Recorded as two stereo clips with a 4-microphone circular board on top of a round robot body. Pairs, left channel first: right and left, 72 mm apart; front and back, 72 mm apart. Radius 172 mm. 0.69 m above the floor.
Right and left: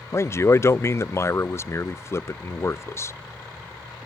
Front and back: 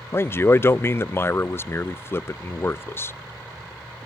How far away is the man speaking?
About 0.5 m.